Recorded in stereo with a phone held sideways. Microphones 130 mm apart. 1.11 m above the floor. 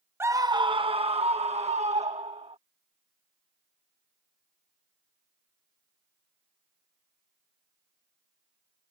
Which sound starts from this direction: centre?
A scream, at 0.2 s.